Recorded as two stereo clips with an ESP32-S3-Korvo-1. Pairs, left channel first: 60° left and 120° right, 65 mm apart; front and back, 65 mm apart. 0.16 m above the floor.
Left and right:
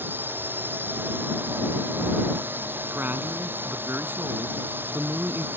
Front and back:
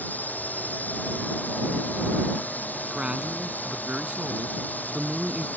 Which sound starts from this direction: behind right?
A man speaking, at 2.9 s.